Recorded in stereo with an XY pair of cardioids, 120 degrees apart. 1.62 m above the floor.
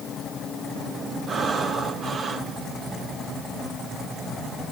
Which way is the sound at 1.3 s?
40° right.